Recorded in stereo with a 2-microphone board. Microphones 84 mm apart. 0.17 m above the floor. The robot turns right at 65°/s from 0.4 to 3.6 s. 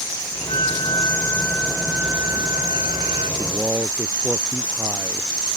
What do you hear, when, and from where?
0.5 s a flute: 95° left; by 3.3 s 80° right
3.4 s a man speaking: 40° right (ahead or behind); by 5.3 s 25° right (ahead or behind)